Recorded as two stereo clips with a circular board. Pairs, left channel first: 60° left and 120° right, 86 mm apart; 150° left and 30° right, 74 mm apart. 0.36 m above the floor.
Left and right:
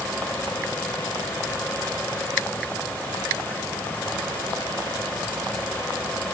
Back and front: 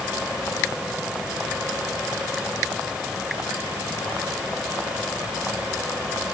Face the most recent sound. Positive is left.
No sound to turn to.